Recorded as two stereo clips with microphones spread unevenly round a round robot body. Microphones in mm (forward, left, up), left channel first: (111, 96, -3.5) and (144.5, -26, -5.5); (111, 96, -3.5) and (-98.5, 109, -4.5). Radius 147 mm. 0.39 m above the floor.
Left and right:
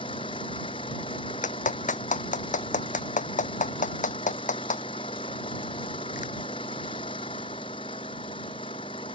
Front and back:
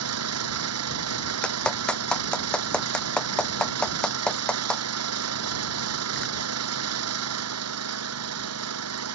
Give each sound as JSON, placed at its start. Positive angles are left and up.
{"t": 0.0, "sound": "an engine running", "azimuth_deg": 180}
{"t": 1.4, "sound": "a clap", "azimuth_deg": 85}